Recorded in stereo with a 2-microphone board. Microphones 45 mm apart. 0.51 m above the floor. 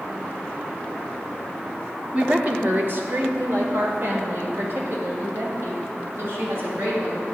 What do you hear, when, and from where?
2.1 s a woman speaking: 30° right (ahead or behind), 0.8 m; by 7.2 s 60° right (ahead or behind), 3 m